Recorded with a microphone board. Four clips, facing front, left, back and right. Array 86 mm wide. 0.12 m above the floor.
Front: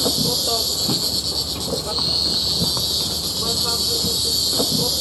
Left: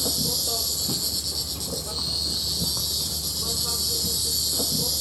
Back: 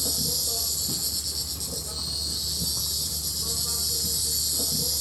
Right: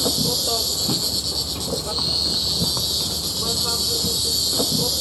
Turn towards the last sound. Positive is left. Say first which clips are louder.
# right 7 dB, front 13 dB
turn(degrees=-30)